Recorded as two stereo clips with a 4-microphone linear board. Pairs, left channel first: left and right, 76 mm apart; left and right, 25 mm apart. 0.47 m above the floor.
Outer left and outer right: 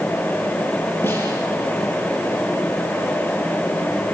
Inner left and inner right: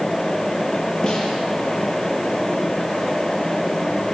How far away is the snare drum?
About 5.5 m.